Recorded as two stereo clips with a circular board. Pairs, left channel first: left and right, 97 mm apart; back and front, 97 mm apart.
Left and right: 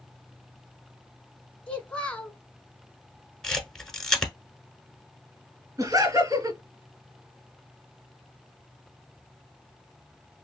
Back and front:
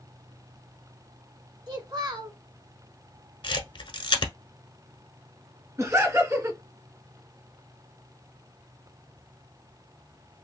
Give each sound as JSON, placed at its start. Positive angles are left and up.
{"t": 1.7, "sound": "a child speaking", "azimuth_deg": 20, "distance_m": 0.9}
{"t": 3.4, "sound": "a camera shutter", "azimuth_deg": 175, "distance_m": 0.9}
{"t": 5.8, "sound": "laughter", "azimuth_deg": -50, "distance_m": 2.5}